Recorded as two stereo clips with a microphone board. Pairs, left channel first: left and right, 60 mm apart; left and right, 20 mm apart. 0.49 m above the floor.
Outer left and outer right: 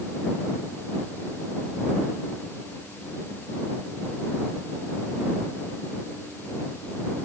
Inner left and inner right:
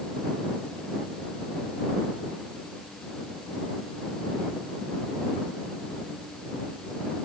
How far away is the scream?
No scream in this recording.